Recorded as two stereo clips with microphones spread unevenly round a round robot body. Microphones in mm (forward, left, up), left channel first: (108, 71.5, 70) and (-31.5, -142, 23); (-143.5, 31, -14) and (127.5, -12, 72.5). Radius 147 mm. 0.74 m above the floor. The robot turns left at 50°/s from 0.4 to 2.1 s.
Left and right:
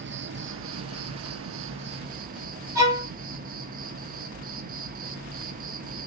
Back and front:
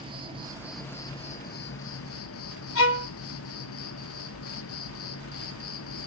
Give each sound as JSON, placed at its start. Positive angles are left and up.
{"t": 0.0, "sound": "an insect", "azimuth_deg": -90, "distance_m": 1.1}
{"t": 2.8, "sound": "a violin", "azimuth_deg": 165, "distance_m": 2.5}